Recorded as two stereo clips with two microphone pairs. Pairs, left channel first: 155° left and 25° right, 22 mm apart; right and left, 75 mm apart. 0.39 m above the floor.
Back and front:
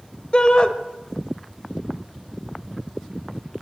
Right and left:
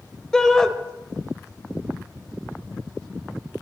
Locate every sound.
0.3 s a shout: 170° right, 1.3 m